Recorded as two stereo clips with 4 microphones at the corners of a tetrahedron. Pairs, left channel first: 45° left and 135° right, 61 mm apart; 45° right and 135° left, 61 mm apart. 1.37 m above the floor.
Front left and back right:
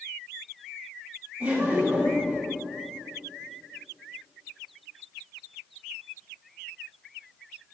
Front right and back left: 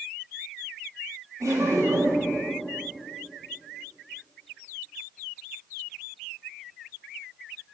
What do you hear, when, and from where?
1.4 s laughter: 160° left, 3 m